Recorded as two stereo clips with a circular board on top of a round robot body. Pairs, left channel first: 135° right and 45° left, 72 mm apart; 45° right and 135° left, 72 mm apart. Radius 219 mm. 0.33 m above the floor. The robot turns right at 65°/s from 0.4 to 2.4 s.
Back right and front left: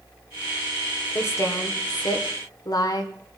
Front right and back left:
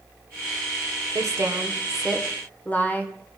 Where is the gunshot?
I don't hear a gunshot.